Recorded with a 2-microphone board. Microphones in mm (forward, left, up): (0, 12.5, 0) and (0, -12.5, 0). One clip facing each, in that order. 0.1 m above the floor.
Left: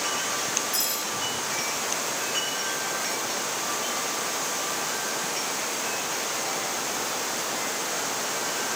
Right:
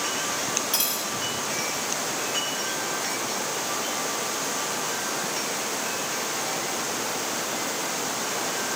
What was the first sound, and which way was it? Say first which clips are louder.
Cutlery clinking: right 1 dB; 55° right (ahead or behind).